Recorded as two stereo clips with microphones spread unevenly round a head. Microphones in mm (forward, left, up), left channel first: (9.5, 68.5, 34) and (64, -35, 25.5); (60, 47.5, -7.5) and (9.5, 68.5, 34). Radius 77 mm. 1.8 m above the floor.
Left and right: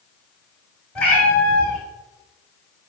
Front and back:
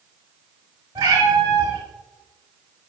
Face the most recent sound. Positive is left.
turn(degrees=-160)